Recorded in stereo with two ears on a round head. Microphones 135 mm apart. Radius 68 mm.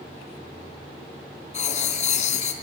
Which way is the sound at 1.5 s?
50° left (ahead or behind).